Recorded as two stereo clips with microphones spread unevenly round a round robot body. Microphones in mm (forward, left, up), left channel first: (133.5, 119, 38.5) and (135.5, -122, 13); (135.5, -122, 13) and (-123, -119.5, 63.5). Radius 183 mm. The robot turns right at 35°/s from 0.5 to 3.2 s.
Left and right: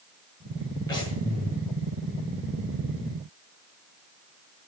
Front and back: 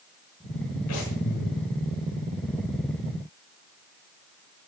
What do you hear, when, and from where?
0.9 s breathing: 15° left, 8 m; by 1.6 s 40° left, 8 m